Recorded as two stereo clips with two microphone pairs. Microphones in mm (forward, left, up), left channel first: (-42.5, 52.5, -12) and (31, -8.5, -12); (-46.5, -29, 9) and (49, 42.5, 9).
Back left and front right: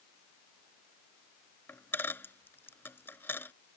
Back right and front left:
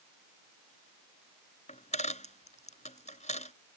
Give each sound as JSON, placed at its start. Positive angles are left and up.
{"t": 1.7, "sound": "a dropped coin", "azimuth_deg": -150}